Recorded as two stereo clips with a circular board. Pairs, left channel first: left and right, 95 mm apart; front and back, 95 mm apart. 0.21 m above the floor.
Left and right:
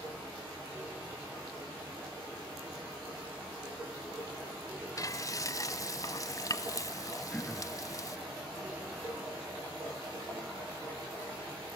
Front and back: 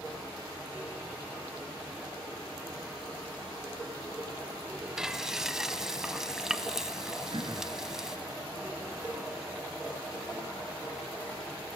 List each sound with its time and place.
5.0 s frying: 100° left, 0.9 m
7.3 s throat clearing: 165° left, 3.5 m